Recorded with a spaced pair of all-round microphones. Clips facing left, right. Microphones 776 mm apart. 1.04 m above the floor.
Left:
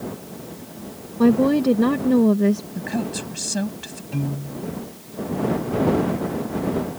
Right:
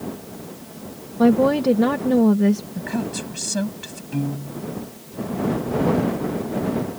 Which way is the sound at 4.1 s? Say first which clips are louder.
Right 2 dB; 15° left (ahead or behind).